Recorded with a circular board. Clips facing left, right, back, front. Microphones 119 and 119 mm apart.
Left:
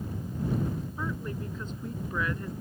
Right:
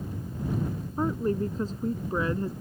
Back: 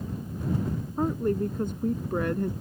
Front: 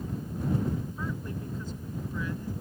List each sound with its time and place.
1.0 s a woman speaking: 140° right; by 2.5 s 150° right